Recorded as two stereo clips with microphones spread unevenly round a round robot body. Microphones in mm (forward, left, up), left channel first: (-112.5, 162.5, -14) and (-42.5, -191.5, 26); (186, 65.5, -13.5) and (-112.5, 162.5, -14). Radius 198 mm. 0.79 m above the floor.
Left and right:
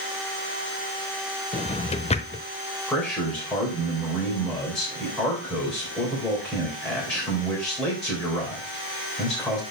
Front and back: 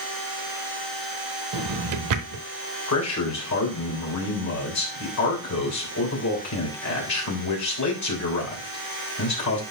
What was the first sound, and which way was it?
A drawer, 175° left.